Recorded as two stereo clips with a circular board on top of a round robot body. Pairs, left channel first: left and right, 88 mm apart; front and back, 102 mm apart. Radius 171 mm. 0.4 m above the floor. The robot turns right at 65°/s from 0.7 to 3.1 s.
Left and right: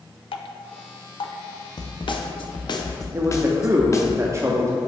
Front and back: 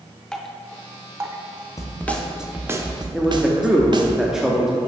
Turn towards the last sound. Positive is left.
turn(degrees=-100)